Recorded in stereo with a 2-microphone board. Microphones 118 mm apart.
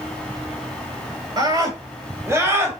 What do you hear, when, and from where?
1.4 s a scream: 35° right (ahead or behind), 3.5 m; by 2.8 s 15° right (ahead or behind), 5 m